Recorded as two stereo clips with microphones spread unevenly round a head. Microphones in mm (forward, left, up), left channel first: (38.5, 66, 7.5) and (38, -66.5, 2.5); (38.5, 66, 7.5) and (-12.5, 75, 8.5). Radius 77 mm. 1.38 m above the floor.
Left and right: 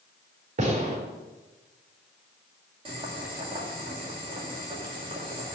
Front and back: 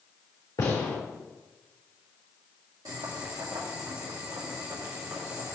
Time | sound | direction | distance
0.6 | a gunshot | 55° right | 4 m
2.9 | boiling | 150° right | 2 m